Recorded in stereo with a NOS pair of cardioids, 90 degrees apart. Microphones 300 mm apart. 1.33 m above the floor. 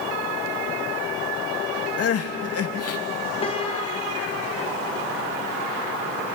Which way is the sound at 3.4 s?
20° left.